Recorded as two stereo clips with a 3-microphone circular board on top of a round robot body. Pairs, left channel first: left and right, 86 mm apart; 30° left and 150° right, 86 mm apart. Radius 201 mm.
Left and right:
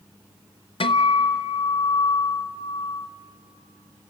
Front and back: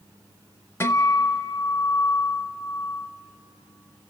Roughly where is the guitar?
Left.